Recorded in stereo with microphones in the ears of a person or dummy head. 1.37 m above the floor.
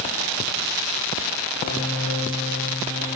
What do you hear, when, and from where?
1.6 s a piano: 80° left, 10 m